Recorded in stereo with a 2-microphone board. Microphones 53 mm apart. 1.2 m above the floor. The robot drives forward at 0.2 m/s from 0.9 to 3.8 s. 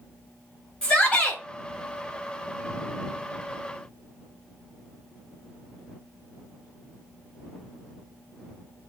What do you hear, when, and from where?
0.8 s a shout: 20° left (ahead or behind), 1.6 m; by 1.4 s 15° left (ahead or behind), 1.7 m